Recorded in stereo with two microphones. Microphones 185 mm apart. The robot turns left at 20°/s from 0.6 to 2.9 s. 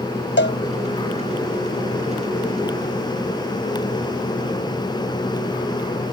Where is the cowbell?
80° left.